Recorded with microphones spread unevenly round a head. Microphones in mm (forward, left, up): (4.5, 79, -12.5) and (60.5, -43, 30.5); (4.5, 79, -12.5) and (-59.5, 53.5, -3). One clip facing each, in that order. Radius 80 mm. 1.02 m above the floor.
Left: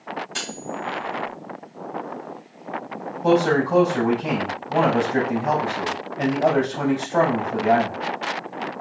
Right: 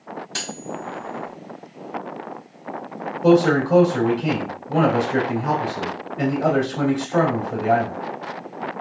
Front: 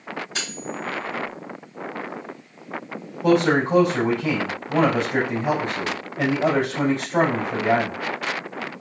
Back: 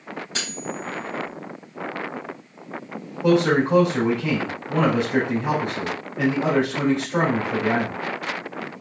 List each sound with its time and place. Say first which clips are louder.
0.3 s cutlery clinking: even, even; 105° right, 3 m
3.2 s a man speaking: right 3 dB, even; 85° right, 3 m